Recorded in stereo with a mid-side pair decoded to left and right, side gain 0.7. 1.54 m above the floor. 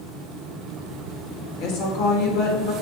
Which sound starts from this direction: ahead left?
A woman speaking, at 1.6 s.